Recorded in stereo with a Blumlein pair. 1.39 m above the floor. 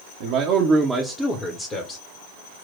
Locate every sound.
0.2 s a man speaking: 50° right, 0.8 m; by 2.0 s 30° left, 1.1 m